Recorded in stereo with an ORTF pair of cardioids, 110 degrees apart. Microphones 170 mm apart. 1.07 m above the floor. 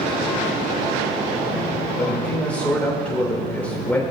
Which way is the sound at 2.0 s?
10° left.